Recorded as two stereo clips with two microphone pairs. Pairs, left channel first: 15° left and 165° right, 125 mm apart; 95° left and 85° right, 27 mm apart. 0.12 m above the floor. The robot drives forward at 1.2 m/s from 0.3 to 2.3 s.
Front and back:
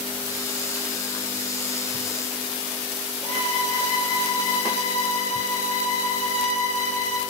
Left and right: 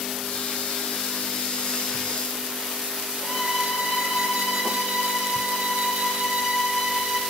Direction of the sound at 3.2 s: 160° right.